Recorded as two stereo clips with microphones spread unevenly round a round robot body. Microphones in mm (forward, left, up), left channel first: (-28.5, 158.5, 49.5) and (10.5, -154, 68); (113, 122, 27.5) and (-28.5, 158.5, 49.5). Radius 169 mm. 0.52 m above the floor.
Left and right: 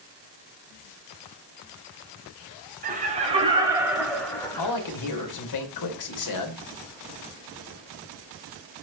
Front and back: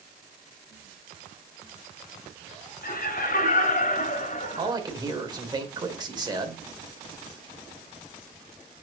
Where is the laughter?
20° right, 3 m; by 4.7 s 20° left, 3 m.